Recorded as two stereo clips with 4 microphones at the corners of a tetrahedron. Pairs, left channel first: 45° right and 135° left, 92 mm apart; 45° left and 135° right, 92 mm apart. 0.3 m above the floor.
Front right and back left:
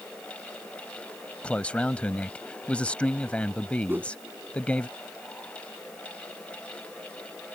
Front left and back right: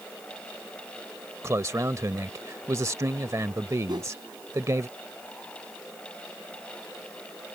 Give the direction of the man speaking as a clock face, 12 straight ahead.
4 o'clock.